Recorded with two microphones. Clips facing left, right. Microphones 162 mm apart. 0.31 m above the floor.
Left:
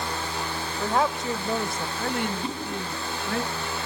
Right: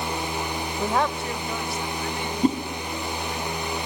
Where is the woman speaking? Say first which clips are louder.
Even; 15° right (ahead or behind), 0.8 m; by 3.4 s 75° left (ahead or behind), 3 m.